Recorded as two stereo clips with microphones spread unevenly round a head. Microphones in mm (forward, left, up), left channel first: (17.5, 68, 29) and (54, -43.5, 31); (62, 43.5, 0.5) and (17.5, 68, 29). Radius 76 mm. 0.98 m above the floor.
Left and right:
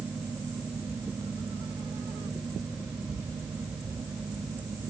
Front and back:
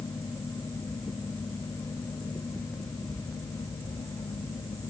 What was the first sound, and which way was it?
Only background noise.